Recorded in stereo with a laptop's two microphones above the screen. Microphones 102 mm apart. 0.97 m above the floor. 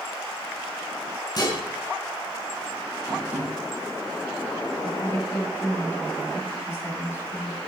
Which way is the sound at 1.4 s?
45° left (ahead or behind).